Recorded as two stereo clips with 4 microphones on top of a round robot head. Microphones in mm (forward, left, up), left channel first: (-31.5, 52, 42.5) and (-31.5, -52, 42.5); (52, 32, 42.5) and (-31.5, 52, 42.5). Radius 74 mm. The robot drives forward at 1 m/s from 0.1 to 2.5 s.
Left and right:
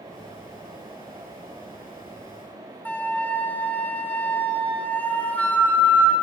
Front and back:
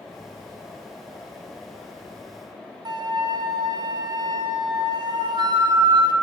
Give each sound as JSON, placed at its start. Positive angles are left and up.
{"t": 2.9, "sound": "a flute", "azimuth_deg": 165, "distance_m": 0.6}